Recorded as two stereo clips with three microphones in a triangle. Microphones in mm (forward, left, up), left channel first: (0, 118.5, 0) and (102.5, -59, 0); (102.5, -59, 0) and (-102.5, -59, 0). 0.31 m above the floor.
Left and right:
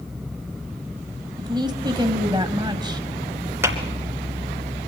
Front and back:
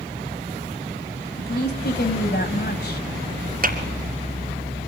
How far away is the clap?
About 2.5 m.